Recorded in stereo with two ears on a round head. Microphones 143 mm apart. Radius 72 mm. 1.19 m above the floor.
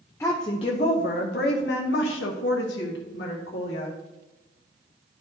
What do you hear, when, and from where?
0.2 s a woman speaking: 15° left (ahead or behind), 0.6 m; by 4.0 s 80° left, 1.9 m